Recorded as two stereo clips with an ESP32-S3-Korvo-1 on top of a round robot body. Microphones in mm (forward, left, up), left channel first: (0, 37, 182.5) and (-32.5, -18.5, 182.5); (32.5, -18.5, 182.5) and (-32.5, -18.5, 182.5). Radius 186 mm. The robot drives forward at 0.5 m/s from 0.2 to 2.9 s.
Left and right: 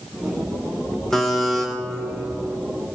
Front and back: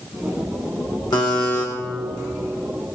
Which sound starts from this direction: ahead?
A buzzer, at 1.1 s.